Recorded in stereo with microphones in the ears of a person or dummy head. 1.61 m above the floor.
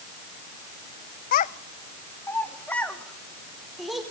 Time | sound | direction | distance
1.3 | a child speaking | 55° left (ahead or behind) | 0.8 m